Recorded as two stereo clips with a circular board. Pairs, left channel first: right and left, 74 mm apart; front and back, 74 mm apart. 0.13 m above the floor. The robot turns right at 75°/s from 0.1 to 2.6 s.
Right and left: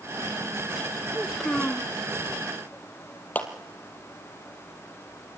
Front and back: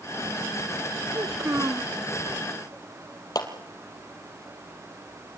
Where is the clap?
25° right, 3 m.